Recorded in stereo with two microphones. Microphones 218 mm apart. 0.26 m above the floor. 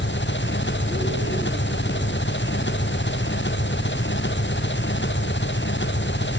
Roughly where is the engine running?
Left.